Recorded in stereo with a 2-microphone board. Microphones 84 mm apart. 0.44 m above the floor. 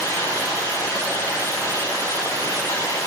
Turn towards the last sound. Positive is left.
turn(degrees=40)  # may be behind; listen again after turning